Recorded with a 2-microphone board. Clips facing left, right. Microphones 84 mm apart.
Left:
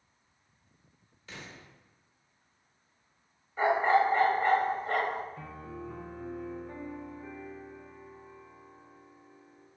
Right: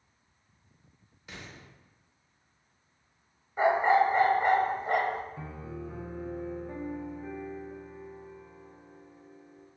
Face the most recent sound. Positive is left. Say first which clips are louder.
# right 2 dB
turn(degrees=-10)  # may be behind; listen again after turning